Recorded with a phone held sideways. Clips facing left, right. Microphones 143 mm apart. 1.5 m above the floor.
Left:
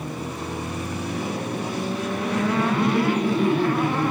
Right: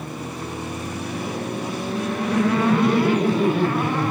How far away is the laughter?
About 6 m.